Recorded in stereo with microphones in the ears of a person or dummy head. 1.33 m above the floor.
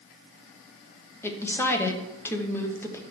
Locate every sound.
1.2 s a woman speaking: 10° left (ahead or behind), 0.9 m